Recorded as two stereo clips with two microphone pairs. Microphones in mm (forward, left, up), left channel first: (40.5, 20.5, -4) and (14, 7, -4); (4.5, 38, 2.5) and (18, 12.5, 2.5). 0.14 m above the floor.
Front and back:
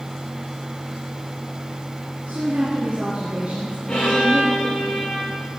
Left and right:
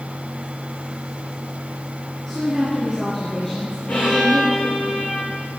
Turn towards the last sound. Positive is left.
turn(degrees=85)